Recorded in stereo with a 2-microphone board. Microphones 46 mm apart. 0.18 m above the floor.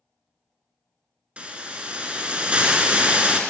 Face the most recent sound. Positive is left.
turn(degrees=-25)  # may be behind; listen again after turning